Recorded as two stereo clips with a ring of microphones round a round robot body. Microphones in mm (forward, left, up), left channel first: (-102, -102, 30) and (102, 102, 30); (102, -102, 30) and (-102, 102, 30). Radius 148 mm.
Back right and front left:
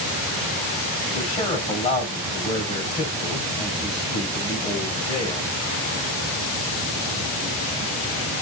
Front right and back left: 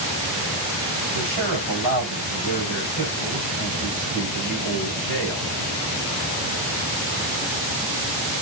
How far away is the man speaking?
About 6 m.